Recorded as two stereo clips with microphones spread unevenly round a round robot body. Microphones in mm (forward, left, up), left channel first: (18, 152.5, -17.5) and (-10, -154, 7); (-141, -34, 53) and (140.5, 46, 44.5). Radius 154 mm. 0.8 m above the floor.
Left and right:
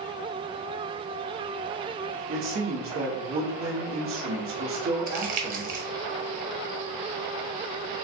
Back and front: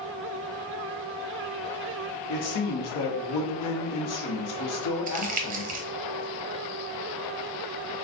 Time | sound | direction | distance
2.3 | a man speaking | 145° right | 1.1 m
5.1 | crumpling | 35° right | 0.7 m